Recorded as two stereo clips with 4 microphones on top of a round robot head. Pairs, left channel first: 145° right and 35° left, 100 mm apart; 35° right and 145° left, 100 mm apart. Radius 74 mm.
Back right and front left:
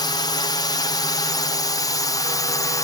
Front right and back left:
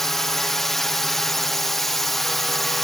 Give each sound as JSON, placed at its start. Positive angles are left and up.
{"t": 0.0, "sound": "a drone", "azimuth_deg": -120}